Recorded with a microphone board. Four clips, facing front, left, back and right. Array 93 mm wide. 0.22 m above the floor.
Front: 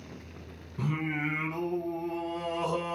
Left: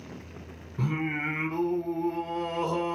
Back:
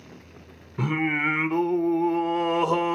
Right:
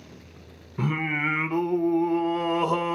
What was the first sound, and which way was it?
Singing, 145° right.